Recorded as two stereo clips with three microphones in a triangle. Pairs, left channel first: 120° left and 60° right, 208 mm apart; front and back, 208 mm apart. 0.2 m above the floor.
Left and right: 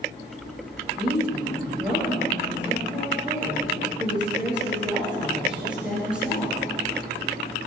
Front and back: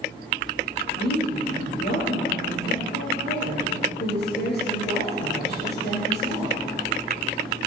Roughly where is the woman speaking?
Ahead left.